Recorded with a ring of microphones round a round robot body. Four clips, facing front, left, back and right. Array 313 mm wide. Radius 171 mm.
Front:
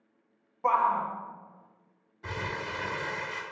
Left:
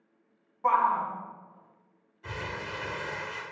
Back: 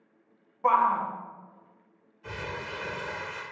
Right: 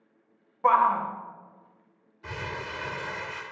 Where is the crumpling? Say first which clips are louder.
Right 1 dB, front 2 dB; 10° right, 1.6 m.